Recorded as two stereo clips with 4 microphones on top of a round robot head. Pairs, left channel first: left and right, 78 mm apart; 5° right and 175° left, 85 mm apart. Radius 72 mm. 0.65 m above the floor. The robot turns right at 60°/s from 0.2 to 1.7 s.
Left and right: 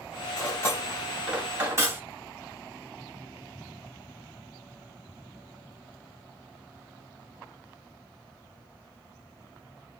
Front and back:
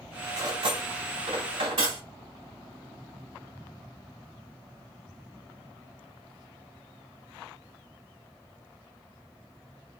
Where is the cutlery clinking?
135° left, 1.6 m; by 2.0 s 145° right, 1.6 m.